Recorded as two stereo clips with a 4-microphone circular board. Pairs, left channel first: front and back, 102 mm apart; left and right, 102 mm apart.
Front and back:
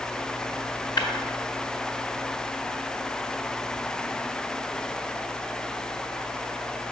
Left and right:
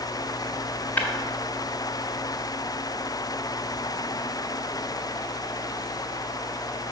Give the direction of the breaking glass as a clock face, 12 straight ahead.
11 o'clock.